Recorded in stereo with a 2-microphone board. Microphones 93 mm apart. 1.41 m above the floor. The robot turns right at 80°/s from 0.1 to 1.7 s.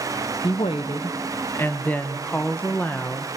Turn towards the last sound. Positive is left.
turn(degrees=160)